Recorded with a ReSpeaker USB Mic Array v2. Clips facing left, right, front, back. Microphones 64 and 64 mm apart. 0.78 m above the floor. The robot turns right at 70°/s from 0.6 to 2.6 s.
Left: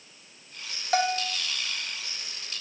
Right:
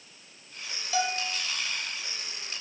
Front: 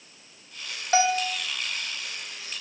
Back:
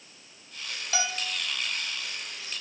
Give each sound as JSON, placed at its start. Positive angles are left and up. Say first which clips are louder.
{"t": 0.9, "sound": "a bell", "louder": "left 4 dB, front 10 dB", "azimuth_deg": 55, "distance_m": 1.2}